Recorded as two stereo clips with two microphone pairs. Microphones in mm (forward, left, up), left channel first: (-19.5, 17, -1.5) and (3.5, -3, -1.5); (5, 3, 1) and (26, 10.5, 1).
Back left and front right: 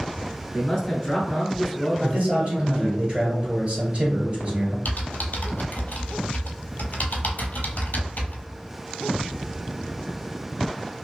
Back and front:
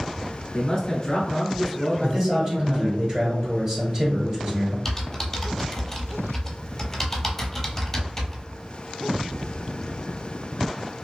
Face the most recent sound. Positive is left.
turn(degrees=125)